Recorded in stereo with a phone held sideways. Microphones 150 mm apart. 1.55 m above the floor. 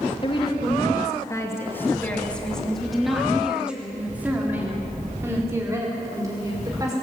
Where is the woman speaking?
40° left (ahead or behind), 2.5 m; by 6.9 s 25° right (ahead or behind), 5.5 m.